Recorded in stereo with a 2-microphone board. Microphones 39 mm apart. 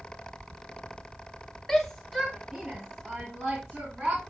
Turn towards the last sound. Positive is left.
turn(degrees=-25)  # may be behind; listen again after turning